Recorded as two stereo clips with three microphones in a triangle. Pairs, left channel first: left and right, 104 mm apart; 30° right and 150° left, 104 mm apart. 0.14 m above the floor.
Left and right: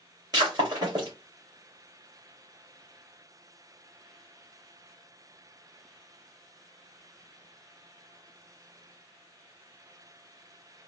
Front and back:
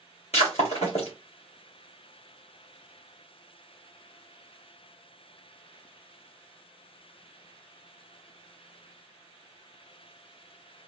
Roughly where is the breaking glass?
Ahead right.